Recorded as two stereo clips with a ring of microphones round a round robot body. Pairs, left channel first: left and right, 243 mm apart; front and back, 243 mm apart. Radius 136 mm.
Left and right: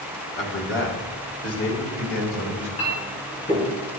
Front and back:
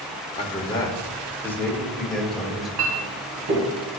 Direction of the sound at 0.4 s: 60° left.